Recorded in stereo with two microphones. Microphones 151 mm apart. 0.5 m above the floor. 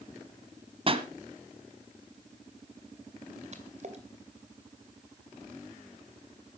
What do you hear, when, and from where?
0.9 s a pop: 40° right (ahead or behind), 1.2 m
3.5 s a splash: 50° right (ahead or behind), 2 m